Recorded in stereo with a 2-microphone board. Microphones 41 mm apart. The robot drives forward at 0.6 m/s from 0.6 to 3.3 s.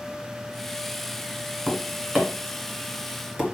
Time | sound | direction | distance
1.7 | tapping | 15° right (ahead or behind) | 1.7 m